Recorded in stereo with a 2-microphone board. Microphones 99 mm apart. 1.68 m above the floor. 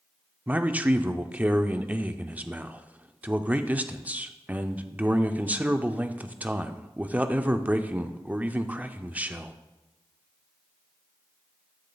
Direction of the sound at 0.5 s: 15° right (ahead or behind).